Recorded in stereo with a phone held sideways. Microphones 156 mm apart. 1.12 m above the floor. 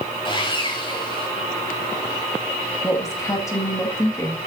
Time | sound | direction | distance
0.2 | sawing | 35° left (ahead or behind) | 3 m
2.8 | a woman speaking | 20° left (ahead or behind) | 2.0 m